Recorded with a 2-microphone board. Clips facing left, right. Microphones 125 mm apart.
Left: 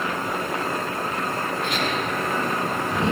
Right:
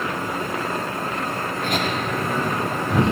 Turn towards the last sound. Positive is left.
turn(degrees=-65)  # may be behind; listen again after turning